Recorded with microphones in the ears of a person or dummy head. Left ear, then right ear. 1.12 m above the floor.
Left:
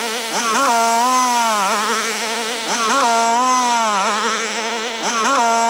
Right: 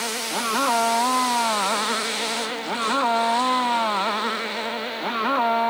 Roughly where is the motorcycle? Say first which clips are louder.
Left 6 dB; left.